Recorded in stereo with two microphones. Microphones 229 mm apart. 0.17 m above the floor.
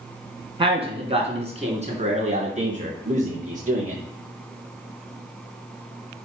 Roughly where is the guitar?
I don't hear a guitar.